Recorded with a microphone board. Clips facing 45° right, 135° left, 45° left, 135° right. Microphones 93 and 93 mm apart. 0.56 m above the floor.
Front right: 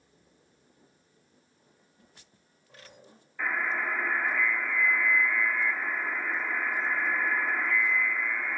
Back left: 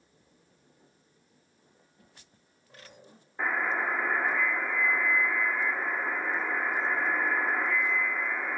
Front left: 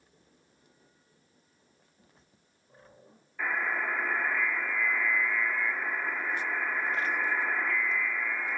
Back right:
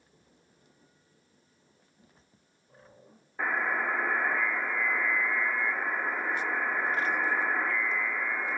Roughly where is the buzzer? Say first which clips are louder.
Back left 1 dB, back right 2 dB; behind.